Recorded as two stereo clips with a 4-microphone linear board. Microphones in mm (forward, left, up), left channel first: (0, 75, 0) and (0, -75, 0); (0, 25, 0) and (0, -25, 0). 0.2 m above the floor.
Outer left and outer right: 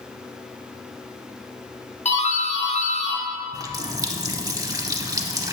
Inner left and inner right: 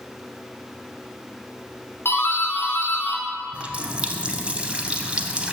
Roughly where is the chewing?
I don't hear chewing.